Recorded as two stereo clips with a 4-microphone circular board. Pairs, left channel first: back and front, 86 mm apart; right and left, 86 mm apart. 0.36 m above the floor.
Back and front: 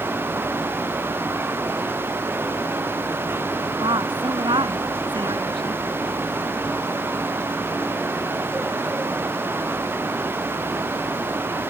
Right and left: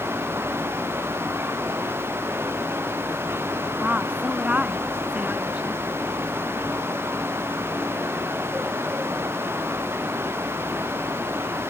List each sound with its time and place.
3.8 s a woman speaking: 20° left; by 5.8 s 15° left